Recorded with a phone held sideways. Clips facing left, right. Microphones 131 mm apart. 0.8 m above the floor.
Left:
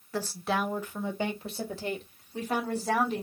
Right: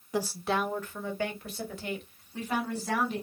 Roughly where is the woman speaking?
Centre.